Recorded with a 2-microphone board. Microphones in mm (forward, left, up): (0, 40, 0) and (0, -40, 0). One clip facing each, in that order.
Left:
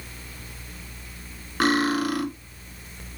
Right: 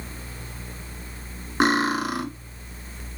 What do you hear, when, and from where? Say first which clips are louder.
1.6 s cutlery clinking: even; 20° right (ahead or behind), 0.8 m